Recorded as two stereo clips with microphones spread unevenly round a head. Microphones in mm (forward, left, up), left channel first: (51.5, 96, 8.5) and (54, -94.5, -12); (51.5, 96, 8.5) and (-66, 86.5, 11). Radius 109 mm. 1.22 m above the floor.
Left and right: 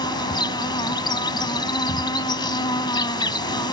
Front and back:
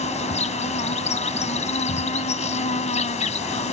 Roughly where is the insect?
Ahead left.